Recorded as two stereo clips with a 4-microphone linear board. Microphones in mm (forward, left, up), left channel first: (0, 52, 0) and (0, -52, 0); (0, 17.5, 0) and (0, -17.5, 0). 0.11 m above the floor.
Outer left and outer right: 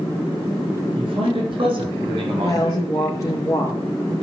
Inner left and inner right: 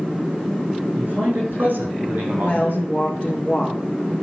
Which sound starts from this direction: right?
A man speaking, at 0.9 s.